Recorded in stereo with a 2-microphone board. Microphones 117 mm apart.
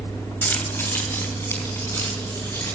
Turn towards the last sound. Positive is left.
turn(degrees=25)  # may be behind; listen again after turning